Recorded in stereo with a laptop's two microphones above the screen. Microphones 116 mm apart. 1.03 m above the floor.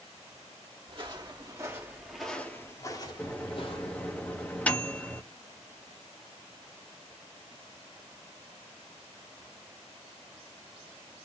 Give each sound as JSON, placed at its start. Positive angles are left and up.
{"t": 0.9, "sound": "footsteps", "side_deg": -45, "distance_m": 1.7}
{"t": 3.2, "sound": "a microwave", "side_deg": 10, "distance_m": 1.1}